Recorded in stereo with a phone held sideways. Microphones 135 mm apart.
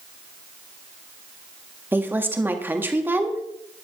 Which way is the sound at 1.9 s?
15° right (ahead or behind).